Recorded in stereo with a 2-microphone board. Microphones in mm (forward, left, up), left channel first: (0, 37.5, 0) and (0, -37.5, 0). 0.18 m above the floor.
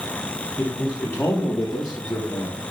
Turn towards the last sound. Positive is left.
turn(degrees=65)  # may be behind; listen again after turning